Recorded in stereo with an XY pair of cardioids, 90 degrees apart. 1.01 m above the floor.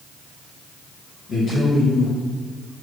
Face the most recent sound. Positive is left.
turn(degrees=65)